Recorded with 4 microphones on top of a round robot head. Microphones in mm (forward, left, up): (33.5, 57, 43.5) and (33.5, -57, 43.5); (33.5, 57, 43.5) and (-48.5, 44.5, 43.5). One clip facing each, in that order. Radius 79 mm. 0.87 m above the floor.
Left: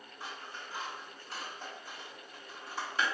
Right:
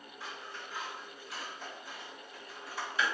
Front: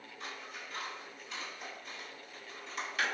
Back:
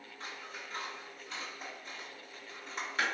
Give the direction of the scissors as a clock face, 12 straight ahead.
7 o'clock.